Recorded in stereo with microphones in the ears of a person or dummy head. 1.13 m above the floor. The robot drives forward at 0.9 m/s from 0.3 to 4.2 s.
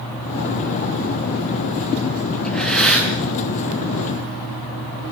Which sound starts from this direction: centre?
Breathing, at 2.4 s.